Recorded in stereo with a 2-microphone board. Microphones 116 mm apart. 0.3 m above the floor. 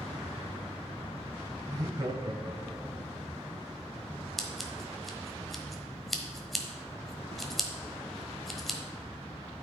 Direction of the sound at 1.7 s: 25° right (ahead or behind).